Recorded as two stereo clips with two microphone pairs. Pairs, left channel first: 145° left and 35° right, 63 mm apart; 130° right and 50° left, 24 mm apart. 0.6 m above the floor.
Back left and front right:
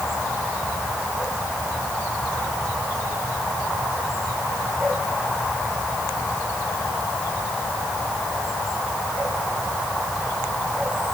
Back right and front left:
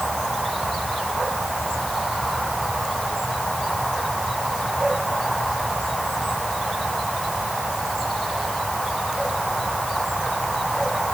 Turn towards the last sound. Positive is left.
No sound to turn to.